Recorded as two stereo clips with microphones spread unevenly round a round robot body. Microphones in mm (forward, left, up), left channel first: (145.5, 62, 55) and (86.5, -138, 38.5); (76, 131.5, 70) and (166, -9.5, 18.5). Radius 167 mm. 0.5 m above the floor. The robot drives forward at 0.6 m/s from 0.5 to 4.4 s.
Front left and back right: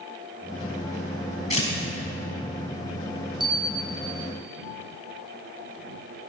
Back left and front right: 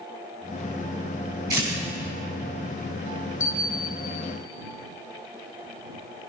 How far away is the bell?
About 0.5 m.